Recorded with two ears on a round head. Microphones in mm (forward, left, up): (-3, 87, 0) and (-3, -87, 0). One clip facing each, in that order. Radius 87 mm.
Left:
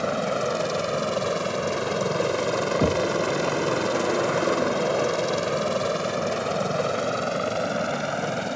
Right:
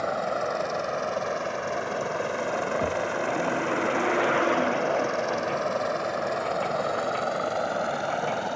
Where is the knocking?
55° left (ahead or behind).